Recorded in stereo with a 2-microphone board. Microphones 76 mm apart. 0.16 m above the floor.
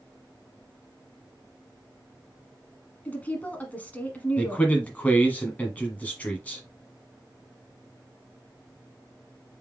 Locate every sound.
3.0 s a woman speaking: 20° left (ahead or behind), 1.2 m
4.4 s a man speaking: 20° left (ahead or behind), 1.1 m